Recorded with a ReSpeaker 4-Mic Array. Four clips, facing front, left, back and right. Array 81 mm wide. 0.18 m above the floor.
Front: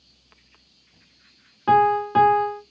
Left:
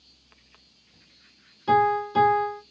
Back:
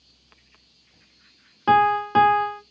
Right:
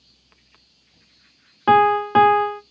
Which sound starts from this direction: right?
A piano, at 1.7 s.